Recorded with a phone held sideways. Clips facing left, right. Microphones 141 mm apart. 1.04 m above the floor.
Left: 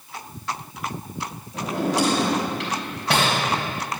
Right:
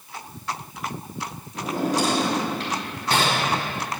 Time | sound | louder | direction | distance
1.5 | a drawer | left 1 dB | 85° left | 3.5 m